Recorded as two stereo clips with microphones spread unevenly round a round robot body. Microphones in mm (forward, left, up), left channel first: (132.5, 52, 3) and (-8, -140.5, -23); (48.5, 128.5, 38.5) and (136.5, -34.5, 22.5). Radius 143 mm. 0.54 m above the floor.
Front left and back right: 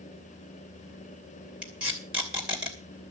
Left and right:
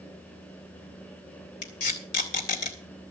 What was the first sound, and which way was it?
Tape being pulled, 150° left.